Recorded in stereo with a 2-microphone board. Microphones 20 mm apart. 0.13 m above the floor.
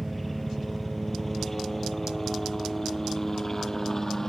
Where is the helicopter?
5° left (ahead or behind); by 4.3 s 25° left (ahead or behind).